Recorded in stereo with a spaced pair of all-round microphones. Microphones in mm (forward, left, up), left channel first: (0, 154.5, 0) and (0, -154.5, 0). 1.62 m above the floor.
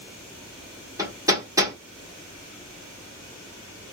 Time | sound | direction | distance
1.0 | hammering | 10° right (ahead or behind) | 1.5 m